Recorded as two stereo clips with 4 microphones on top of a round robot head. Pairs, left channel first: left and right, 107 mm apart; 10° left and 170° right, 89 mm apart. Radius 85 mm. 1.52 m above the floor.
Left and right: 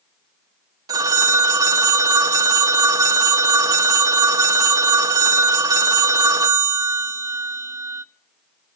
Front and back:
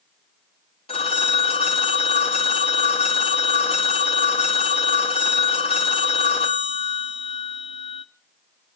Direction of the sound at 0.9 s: 40° right.